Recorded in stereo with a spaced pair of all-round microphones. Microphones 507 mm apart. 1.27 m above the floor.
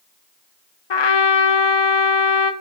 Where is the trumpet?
60° left (ahead or behind), 0.5 m.